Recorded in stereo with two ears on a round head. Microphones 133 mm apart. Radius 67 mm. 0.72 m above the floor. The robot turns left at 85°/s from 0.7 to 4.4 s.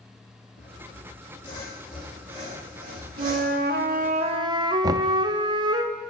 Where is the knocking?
25° right (ahead or behind), 0.5 m.